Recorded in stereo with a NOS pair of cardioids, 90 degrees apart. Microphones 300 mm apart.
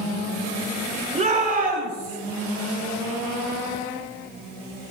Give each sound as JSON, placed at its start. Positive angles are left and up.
{"t": 1.1, "sound": "a shout", "azimuth_deg": -25, "distance_m": 3.5}